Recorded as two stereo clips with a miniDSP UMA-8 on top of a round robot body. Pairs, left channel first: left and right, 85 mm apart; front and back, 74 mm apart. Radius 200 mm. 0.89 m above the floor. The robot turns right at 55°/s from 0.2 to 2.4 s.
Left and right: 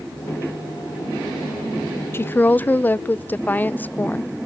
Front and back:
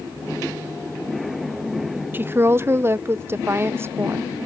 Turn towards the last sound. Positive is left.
turn(degrees=145)